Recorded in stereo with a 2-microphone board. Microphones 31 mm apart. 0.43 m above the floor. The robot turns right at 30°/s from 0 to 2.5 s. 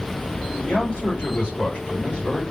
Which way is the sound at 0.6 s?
75° left.